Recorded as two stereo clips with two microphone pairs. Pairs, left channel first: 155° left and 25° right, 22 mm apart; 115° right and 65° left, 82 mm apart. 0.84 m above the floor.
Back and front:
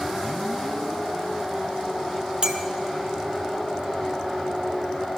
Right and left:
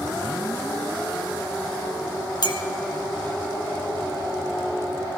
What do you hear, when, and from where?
2.4 s a clink: 85° right, 1.3 m